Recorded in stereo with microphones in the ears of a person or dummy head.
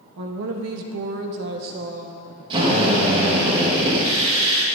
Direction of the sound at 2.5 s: 35° right (ahead or behind).